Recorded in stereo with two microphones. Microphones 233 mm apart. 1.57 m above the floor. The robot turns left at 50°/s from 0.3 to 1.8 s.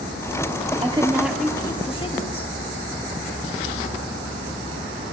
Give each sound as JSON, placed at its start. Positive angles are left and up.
{"t": 0.8, "sound": "a woman speaking", "azimuth_deg": -155, "distance_m": 0.8}